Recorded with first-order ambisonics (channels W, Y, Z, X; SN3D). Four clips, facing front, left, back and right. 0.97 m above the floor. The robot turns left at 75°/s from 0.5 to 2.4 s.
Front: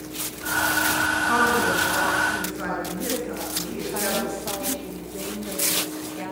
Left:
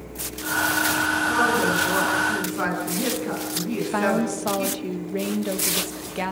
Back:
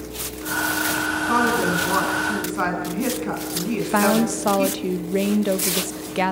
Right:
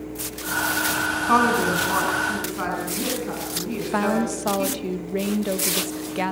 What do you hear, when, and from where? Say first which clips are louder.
1.3 s a woman speaking: right 5 dB, back 2 dB; 95° right, 8.5 m; by 4.7 s straight behind, 8.5 m
3.7 s a woman speaking: even, back 9 dB; 170° right, 1.1 m